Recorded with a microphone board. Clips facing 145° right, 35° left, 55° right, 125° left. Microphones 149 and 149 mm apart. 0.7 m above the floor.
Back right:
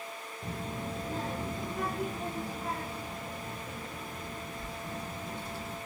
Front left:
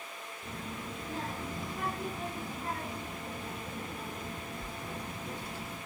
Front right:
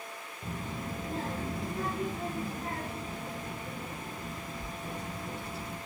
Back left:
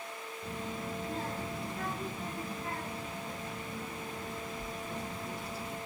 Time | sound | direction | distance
0.4 | a child speaking | 105° right | 1.5 m